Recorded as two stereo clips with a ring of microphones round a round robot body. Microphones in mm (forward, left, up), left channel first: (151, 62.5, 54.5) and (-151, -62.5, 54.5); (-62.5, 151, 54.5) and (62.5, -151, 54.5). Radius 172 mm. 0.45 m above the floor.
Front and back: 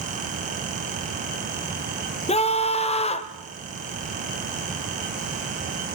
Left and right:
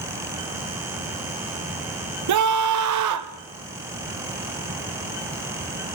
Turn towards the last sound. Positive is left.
turn(degrees=-45)